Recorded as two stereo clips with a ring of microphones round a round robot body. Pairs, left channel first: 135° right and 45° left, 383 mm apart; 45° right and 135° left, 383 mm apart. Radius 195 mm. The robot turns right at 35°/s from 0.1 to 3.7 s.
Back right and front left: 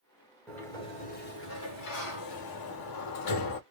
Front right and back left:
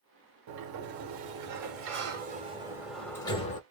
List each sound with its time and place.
0.5 s a sliding door: 140° left, 1.3 m; by 3.6 s 110° right, 1.3 m